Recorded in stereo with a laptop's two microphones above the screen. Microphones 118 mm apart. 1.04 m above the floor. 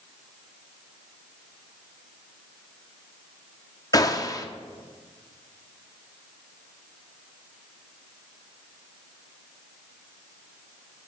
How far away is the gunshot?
About 0.6 m.